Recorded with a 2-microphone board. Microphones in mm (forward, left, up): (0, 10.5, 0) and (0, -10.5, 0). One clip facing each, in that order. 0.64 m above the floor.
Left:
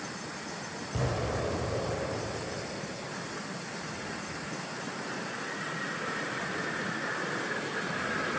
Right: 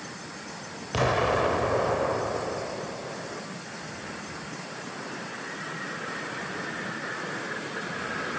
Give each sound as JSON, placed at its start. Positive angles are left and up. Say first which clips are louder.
{"t": 0.9, "sound": "an explosion", "louder": "right 9 dB", "side_deg": -50, "distance_m": 1.0}